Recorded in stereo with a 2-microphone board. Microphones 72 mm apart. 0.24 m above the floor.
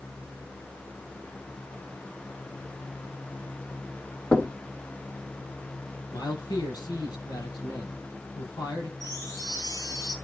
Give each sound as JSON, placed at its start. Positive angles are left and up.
{"t": 4.3, "sound": "knocking", "side_deg": 15, "distance_m": 1.4}
{"t": 6.1, "sound": "a man speaking", "side_deg": 80, "distance_m": 6.0}
{"t": 9.0, "sound": "a chime", "side_deg": 80, "distance_m": 6.0}